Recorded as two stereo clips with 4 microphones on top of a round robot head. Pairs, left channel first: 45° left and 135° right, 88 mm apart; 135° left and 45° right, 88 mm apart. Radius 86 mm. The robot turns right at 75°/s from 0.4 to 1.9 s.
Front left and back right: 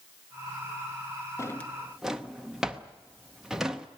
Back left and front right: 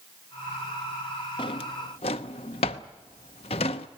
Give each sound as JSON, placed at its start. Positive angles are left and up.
{"t": 1.4, "sound": "a drawer", "azimuth_deg": 105, "distance_m": 0.7}